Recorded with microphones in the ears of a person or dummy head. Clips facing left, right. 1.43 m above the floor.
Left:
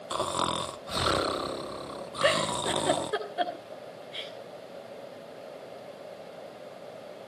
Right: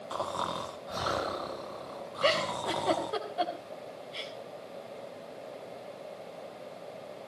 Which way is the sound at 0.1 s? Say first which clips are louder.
Left 4 dB; 20° left (ahead or behind).